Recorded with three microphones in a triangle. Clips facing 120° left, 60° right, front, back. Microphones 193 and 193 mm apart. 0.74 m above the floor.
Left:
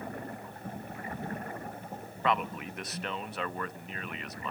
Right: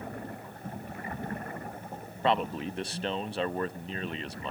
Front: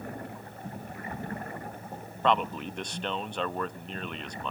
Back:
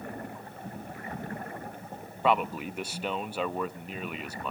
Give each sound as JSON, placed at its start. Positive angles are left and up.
{"t": 2.2, "sound": "a man speaking", "azimuth_deg": -100, "distance_m": 0.7}